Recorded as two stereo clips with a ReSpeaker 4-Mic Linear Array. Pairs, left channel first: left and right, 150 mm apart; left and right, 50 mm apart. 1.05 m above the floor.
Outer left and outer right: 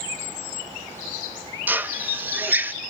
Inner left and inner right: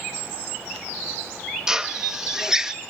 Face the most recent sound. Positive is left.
turn(degrees=-10)  # may be behind; listen again after turning